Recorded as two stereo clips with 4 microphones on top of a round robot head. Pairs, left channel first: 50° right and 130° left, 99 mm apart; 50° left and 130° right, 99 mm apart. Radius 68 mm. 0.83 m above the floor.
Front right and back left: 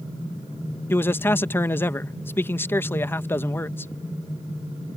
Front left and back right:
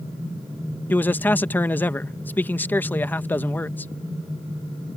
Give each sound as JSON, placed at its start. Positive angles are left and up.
{"t": 0.9, "sound": "a man speaking", "azimuth_deg": -5}